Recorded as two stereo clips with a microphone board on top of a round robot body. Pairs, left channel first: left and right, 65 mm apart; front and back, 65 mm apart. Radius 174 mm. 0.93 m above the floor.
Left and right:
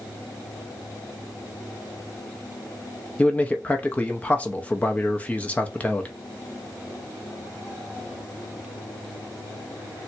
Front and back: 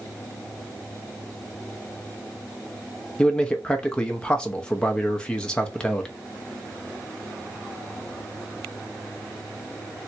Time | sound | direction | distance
3.2 | a man speaking | 55° left | 0.8 m